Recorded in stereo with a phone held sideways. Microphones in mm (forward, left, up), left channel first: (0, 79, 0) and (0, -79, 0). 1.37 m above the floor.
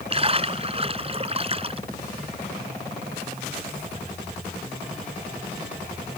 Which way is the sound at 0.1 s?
35° right (ahead or behind).